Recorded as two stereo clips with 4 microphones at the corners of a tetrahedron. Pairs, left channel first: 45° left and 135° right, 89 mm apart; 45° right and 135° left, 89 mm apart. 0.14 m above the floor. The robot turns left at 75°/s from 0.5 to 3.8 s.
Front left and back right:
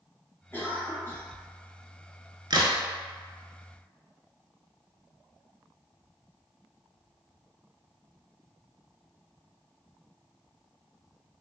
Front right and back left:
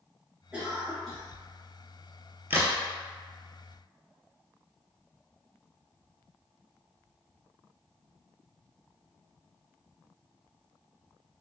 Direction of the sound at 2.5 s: 160° right.